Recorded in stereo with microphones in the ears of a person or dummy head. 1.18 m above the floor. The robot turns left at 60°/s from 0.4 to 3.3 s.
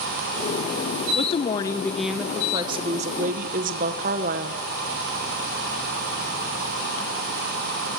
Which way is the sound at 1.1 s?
50° left.